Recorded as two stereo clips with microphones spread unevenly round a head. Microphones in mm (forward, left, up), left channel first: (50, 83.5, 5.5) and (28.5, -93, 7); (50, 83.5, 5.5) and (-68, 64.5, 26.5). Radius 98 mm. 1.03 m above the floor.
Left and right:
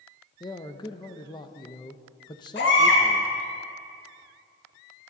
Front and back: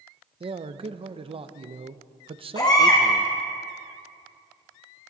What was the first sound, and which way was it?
A man speaking, 150° left.